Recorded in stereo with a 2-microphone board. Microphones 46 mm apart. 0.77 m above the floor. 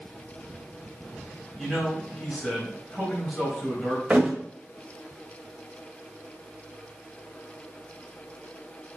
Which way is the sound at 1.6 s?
15° left (ahead or behind).